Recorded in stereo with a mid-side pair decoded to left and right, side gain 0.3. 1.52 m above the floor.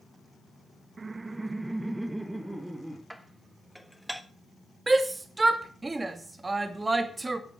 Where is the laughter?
50° right, 0.6 m; by 3.0 s 15° right, 3 m.